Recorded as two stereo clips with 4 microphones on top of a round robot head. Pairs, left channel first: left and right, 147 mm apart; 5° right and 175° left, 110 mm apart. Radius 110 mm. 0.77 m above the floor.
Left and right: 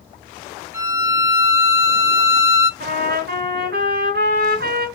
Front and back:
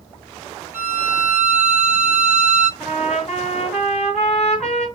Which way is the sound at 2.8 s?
90° right.